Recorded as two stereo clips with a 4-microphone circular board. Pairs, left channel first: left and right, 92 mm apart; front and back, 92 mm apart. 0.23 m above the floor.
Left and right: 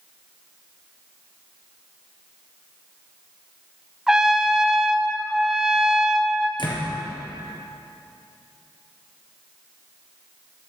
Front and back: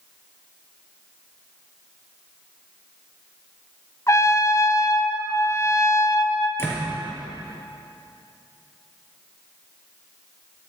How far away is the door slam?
About 4 m.